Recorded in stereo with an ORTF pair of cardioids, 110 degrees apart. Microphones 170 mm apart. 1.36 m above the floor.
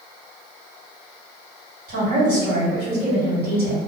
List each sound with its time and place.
1.9 s a woman speaking: 60° right, 1.7 m